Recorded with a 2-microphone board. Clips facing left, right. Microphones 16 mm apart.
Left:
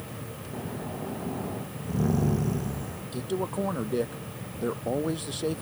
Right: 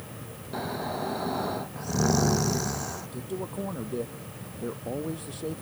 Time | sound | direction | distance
0.5 | snoring | 70° right (ahead or behind) | ?
3.1 | a man speaking | 35° left (ahead or behind) | ?